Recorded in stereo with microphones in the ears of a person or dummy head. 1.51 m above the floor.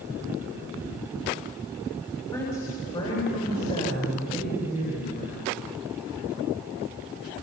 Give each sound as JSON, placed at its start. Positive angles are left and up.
{"t": 2.2, "sound": "a woman speaking", "side_deg": 15, "distance_m": 5.5}